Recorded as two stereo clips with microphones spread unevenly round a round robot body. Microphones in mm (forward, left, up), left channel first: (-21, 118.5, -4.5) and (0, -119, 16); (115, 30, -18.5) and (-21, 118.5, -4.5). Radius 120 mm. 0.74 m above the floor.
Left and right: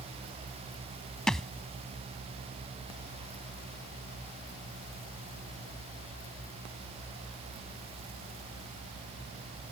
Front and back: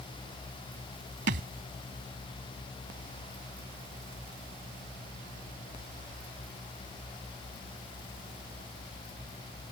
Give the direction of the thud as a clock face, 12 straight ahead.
6 o'clock.